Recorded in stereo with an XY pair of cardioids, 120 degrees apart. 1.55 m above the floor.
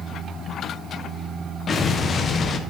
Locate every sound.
1.7 s an explosion: 40° left, 0.9 m